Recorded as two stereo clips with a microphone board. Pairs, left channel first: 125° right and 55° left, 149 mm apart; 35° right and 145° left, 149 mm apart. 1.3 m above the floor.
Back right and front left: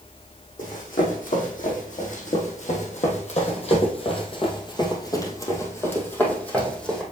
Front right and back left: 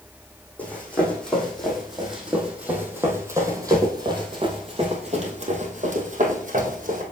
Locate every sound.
0.6 s running footsteps: 115° right, 3 m; by 7.0 s 150° left, 2.5 m